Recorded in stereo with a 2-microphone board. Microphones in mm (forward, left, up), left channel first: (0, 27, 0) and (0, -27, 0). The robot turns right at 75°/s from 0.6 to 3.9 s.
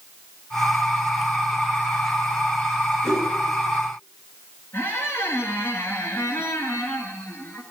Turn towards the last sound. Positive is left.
turn(degrees=50)  # may be behind; listen again after turning